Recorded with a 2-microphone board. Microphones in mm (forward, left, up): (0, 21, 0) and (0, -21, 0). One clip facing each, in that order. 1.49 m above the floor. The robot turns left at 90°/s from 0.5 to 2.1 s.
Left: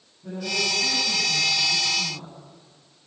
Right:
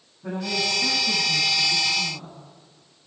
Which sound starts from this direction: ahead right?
A woman speaking, at 0.2 s.